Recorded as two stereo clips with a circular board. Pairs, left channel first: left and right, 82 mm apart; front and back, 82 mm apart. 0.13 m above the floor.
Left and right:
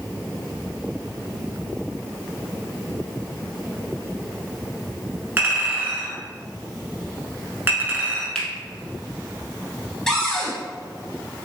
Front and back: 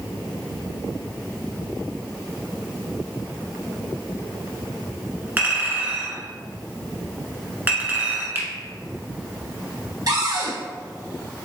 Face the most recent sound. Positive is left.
turn(degrees=170)